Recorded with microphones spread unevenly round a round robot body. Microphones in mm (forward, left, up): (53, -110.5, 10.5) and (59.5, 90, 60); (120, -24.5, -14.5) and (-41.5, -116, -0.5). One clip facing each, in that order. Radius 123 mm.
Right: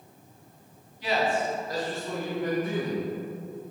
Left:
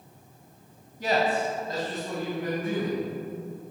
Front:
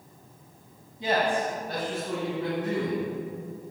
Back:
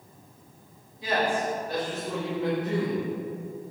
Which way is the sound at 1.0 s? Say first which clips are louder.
Left 1 dB, front 1 dB; 70° left.